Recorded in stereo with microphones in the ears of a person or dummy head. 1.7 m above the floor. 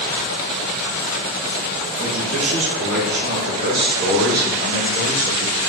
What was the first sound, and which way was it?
A man speaking, 80° right.